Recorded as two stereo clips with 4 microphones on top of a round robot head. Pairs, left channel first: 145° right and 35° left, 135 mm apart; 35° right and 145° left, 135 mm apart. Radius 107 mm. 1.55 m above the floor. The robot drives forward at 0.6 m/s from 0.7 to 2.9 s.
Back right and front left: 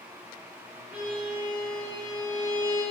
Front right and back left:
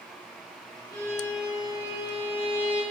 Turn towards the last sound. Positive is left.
turn(degrees=165)